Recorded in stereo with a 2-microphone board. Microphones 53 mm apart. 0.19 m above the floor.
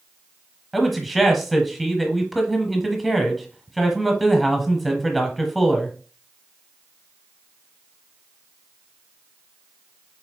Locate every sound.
0.7 s a man speaking: centre (ahead or behind), 1.0 m